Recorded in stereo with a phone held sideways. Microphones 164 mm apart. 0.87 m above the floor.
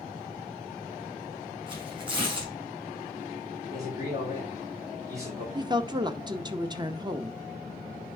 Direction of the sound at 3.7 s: 20° right (ahead or behind).